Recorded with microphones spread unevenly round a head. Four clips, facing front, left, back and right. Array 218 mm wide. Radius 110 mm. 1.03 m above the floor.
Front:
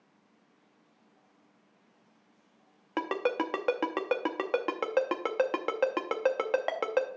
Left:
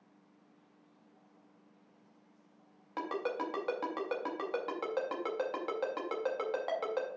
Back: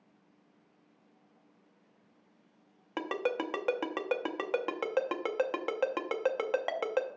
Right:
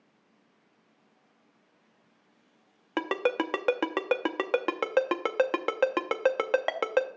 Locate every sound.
3.0 s a ringtone: 65° right, 0.7 m